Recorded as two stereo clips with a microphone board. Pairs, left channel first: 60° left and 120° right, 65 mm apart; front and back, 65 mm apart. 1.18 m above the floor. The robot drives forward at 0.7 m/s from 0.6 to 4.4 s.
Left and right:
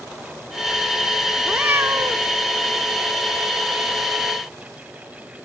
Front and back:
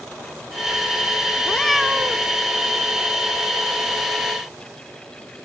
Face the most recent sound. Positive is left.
turn(degrees=-170)